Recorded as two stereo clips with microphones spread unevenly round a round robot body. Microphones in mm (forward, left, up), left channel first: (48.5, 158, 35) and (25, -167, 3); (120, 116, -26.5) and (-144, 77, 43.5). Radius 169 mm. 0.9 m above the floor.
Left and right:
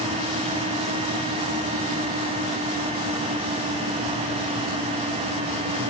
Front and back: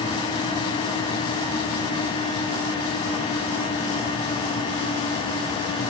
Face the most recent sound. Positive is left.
No sound to turn to.